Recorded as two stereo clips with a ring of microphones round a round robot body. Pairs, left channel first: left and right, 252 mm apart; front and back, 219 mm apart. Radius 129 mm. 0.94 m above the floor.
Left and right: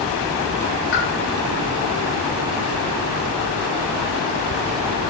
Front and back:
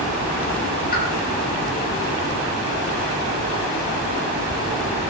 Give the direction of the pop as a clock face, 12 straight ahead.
11 o'clock.